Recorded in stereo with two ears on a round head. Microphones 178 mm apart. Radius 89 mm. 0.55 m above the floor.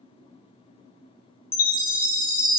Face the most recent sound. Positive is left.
turn(degrees=-5)  # may be behind; listen again after turning